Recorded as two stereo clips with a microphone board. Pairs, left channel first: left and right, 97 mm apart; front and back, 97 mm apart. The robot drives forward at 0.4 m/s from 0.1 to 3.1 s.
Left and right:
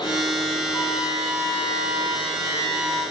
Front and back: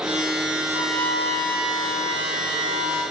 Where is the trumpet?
150° left, 5 m; by 3.0 s 155° left, 6 m.